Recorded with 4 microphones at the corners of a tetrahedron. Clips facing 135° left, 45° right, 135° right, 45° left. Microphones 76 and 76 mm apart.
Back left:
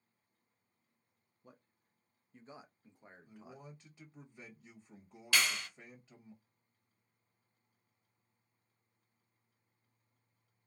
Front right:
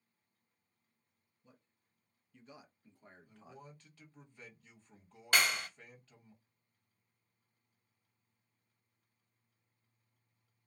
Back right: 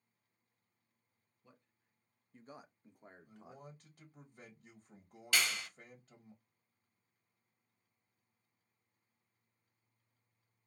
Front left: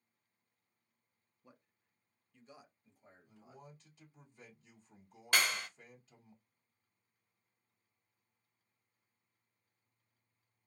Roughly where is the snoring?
No snoring in this recording.